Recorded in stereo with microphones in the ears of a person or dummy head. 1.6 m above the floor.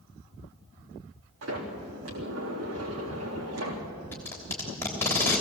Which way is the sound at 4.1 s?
10° left (ahead or behind).